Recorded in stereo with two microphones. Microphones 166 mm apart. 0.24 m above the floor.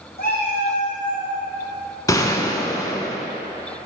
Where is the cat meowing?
70° left (ahead or behind), 2 m; by 1.3 s 50° left (ahead or behind), 2 m.